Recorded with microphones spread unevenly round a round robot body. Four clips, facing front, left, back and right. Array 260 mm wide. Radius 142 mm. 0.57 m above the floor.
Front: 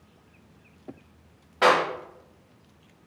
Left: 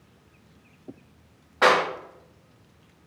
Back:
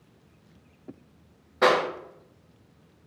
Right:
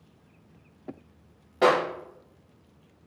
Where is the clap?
100° right, 3.5 m.